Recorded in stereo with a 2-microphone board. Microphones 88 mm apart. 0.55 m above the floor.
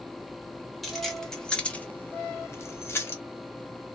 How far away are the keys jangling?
About 0.9 m.